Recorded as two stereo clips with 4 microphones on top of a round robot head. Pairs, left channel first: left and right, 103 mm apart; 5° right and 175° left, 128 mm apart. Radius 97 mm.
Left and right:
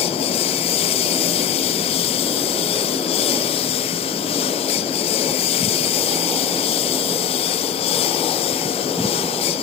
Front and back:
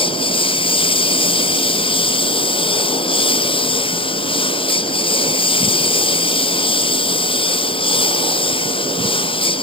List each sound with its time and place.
0.0 s a lawn mower: 45° left